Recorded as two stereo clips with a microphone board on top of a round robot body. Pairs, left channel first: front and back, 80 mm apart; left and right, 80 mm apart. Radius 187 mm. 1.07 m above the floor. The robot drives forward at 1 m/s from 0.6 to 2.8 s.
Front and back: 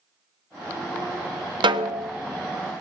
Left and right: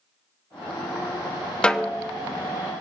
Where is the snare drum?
165° left, 0.6 m; by 2.1 s 170° left, 1.0 m.